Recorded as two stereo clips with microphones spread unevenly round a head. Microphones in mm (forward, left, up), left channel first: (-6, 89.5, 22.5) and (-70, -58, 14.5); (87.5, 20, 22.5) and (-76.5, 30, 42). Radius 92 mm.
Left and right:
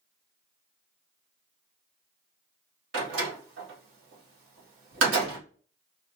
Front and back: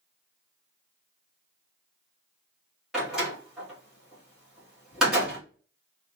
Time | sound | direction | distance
2.9 | a door slam | 100° right | 1.8 m